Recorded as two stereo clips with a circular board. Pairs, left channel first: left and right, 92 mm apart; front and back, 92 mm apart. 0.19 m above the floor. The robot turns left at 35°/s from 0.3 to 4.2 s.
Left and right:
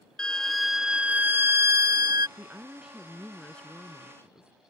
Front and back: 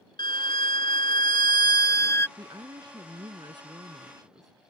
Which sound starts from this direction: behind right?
A woman speaking, at 2.4 s.